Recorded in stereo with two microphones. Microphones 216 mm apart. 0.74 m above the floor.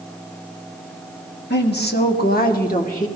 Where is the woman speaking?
50° left (ahead or behind), 1.5 m; by 3.1 s 35° left (ahead or behind), 2 m.